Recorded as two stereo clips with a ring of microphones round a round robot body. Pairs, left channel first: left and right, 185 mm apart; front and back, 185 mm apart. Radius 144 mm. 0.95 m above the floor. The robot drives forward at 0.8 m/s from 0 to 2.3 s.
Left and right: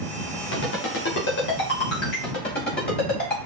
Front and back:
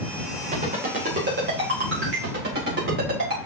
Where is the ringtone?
120° left, 3 m; by 3.4 s 140° left, 3.5 m.